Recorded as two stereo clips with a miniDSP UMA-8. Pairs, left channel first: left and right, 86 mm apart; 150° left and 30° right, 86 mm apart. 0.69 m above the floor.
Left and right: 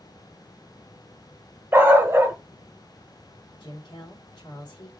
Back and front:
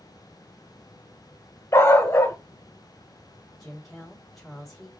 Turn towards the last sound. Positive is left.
turn(degrees=65)